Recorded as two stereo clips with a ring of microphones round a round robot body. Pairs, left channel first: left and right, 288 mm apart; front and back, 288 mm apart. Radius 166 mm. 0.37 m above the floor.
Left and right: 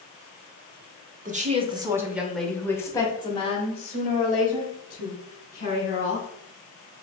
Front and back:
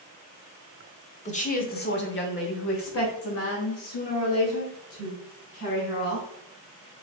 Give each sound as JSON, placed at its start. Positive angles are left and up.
{"t": 1.2, "sound": "a woman speaking", "azimuth_deg": -50, "distance_m": 1.0}